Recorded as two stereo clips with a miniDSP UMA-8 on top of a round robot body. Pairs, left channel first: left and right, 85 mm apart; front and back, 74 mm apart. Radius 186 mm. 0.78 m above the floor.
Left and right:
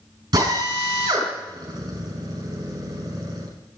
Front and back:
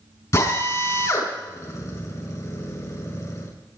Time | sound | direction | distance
0.3 | a drill | 45° right | 6 m